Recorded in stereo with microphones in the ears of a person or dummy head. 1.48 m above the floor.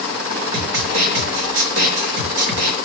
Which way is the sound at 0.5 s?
70° right (ahead or behind).